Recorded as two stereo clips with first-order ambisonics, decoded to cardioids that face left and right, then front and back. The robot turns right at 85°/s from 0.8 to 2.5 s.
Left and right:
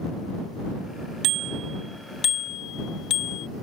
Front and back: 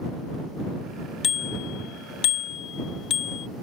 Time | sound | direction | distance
1.2 | a bicycle bell | 60° right | ?